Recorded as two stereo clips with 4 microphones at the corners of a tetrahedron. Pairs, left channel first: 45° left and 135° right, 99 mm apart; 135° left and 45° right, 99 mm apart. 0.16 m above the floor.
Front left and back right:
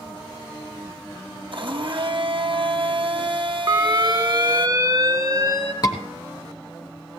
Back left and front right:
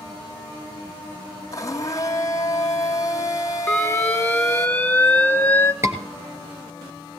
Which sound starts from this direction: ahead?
A scream, at 5.8 s.